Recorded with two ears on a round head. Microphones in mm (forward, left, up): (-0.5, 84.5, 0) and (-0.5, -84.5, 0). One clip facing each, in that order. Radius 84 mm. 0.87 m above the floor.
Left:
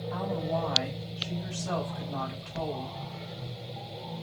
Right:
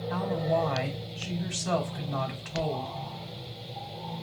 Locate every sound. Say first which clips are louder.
0.1 s a woman speaking: right 3 dB; 70° right (ahead or behind), 4 m